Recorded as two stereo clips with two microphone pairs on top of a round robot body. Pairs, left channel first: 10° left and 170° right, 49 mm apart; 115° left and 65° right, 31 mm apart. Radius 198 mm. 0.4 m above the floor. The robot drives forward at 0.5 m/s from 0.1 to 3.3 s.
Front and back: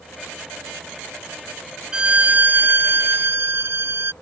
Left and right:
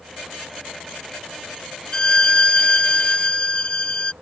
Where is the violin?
160° left; by 4.1 s 175° left.